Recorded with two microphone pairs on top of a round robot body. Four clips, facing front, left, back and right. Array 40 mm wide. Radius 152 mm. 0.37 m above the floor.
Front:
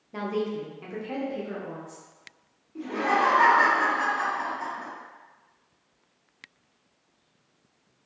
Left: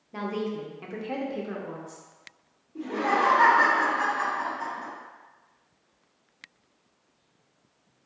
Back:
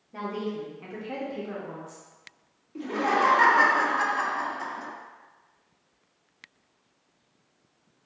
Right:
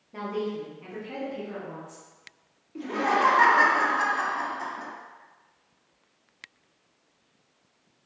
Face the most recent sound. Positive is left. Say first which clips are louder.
# even, even
turn(degrees=-130)